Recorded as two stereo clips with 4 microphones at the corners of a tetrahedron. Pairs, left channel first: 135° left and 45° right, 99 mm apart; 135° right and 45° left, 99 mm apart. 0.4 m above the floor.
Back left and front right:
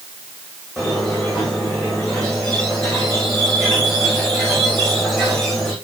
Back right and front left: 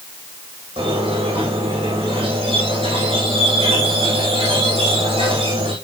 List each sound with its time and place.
0.8 s a squeak: 45° left, 9.5 m